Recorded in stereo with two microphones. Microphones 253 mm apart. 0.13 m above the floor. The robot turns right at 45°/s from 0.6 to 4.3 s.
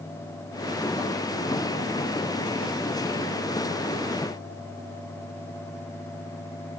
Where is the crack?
No crack in this recording.